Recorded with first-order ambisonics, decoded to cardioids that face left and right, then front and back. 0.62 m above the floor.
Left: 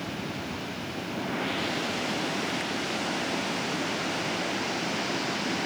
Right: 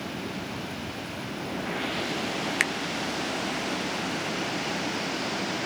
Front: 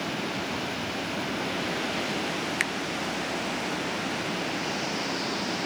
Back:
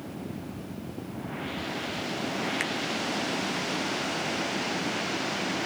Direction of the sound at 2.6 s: 70° right.